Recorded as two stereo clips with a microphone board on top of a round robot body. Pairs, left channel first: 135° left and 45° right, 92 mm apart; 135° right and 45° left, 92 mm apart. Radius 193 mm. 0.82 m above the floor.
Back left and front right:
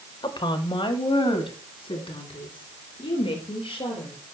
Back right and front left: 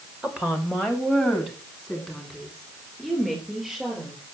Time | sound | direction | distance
0.2 | a woman speaking | 125° left | 1.5 m